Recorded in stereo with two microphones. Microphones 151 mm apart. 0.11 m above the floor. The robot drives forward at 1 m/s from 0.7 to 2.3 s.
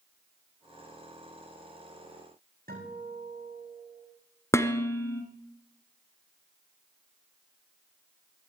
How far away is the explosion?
No explosion in this recording.